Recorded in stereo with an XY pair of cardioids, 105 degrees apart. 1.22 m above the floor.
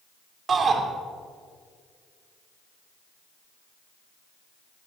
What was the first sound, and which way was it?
A shout, 40° right.